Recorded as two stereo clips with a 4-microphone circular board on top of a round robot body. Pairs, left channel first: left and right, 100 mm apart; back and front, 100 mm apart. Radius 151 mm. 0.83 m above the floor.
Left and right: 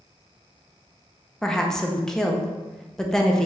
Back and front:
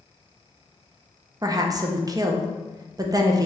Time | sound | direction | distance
1.4 | a woman speaking | 10° left | 0.8 m